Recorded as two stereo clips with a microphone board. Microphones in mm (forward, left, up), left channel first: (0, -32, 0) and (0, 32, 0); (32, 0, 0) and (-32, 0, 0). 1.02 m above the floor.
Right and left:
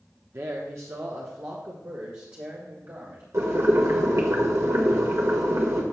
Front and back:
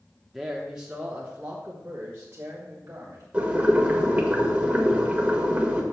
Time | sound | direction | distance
0.3 | a man speaking | 95° left | 0.9 m
3.3 | boiling | 115° left | 1.6 m